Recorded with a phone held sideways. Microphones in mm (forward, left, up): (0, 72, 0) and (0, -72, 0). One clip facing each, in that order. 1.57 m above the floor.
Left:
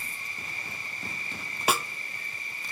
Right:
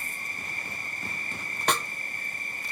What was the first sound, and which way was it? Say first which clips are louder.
An insect: right 2 dB; 45° right (ahead or behind).